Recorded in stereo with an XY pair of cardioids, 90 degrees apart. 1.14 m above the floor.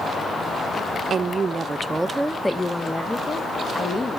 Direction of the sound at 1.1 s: 55° right.